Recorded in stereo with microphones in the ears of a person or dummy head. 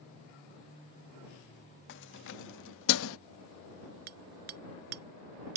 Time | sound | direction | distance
1.9 | keys jangling | 60° left (ahead or behind) | ?
4.1 | hammering | 50° right (ahead or behind) | ?